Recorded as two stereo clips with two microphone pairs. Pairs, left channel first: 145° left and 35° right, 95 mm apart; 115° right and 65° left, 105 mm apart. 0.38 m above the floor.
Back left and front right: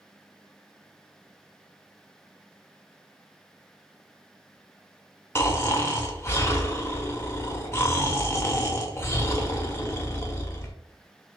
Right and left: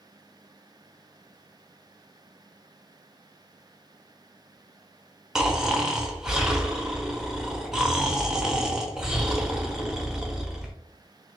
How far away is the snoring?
About 0.8 m.